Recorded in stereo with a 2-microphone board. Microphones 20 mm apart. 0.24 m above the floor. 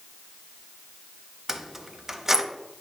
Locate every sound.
1.5 s keys jangling: 20° right (ahead or behind), 0.6 m